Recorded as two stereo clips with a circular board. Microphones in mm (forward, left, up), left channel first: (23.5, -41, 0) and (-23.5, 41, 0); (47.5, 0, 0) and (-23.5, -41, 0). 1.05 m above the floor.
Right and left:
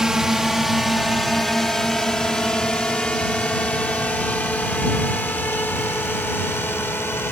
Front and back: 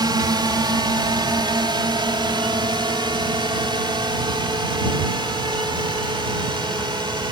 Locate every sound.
0.0 s a drone: 155° right; by 7.3 s 125° right